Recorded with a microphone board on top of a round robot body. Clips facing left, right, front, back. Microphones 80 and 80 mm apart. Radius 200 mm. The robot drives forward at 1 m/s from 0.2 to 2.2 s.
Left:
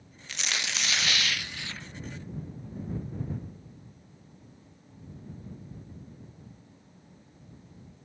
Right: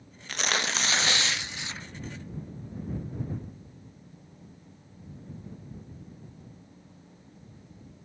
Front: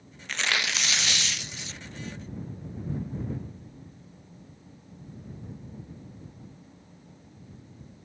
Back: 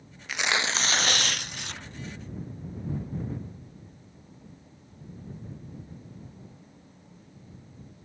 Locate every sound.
0.3 s tearing paper: 100° right; by 1.9 s 160° right